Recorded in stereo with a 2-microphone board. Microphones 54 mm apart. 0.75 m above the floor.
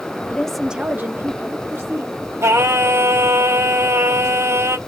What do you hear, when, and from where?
0.3 s a woman speaking: 25° left (ahead or behind), 0.6 m; by 2.2 s 70° right (ahead or behind), 1.8 m
2.4 s singing: 70° right (ahead or behind), 1.9 m